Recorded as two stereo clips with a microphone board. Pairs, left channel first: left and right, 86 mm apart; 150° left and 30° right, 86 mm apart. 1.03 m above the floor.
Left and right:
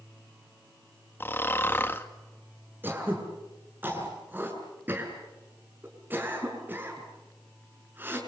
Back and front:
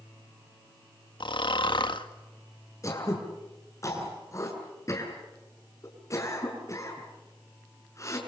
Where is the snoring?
155° left, 2 m.